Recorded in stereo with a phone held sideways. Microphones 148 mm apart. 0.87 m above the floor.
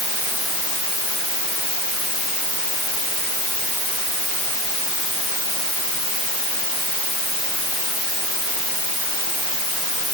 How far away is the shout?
No shout in this recording.